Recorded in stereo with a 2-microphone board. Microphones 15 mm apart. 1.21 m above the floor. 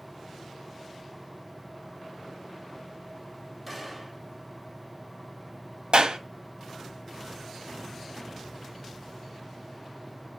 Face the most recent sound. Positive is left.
turn(degrees=-80)